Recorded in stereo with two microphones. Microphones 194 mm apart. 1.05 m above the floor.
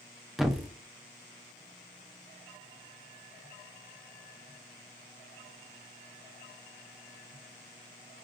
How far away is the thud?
About 0.5 m.